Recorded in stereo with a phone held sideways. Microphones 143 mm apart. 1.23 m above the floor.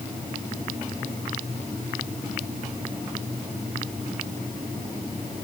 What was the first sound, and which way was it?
Only background noise.